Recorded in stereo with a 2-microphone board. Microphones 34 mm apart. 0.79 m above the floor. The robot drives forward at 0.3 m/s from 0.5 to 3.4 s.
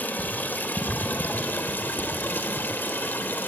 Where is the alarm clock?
No alarm clock in this recording.